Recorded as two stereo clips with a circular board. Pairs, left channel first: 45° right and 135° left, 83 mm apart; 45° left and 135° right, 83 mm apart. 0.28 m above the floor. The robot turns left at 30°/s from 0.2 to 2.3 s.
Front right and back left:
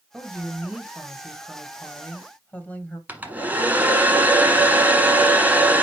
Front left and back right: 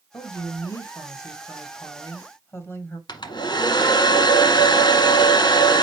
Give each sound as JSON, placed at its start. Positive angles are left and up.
{"t": 0.1, "sound": "a woman speaking", "azimuth_deg": 75, "distance_m": 1.9}
{"t": 3.1, "sound": "a hair dryer", "azimuth_deg": 65, "distance_m": 1.2}